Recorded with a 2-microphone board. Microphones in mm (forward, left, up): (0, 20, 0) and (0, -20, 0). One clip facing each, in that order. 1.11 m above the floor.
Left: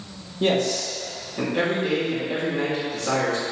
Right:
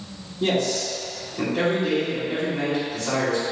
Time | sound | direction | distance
0.4 | a man speaking | 40° left (ahead or behind) | 2 m